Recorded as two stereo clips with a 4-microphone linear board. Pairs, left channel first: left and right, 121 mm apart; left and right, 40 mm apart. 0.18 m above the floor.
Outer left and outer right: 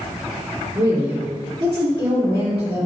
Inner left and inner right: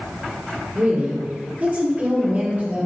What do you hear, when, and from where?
0.8 s a woman speaking: 35° right (ahead or behind), 2.5 m